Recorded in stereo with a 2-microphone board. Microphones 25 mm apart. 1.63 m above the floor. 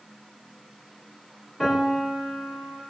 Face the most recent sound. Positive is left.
turn(degrees=15)  # may be behind; listen again after turning